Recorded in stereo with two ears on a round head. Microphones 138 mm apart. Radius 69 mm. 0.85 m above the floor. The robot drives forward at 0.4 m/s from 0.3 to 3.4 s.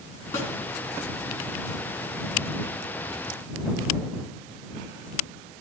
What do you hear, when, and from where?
0.3 s a snare drum: 20° left (ahead or behind), 3 m